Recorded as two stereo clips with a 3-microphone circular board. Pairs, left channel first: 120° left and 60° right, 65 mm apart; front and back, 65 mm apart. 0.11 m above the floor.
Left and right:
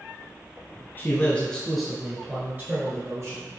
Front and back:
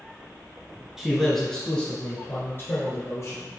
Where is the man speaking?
105° left, 1.2 m; by 3.5 s 35° right, 1.7 m.